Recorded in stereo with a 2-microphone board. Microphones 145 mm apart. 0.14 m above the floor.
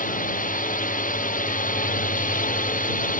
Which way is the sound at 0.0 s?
70° left (ahead or behind).